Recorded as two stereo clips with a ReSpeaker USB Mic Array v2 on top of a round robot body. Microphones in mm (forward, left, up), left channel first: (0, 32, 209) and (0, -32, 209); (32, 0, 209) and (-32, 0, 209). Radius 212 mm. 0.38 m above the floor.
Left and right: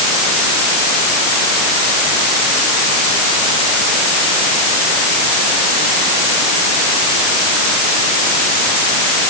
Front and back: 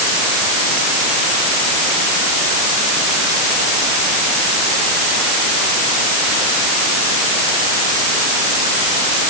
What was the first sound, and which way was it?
Only background noise.